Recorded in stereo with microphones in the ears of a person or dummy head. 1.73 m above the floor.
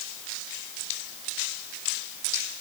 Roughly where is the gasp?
No gasp in this recording.